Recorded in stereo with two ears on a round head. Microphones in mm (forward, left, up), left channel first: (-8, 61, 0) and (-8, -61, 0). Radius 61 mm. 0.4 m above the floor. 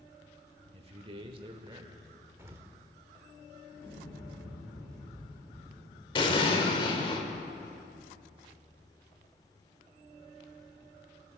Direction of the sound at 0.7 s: 45° right (ahead or behind).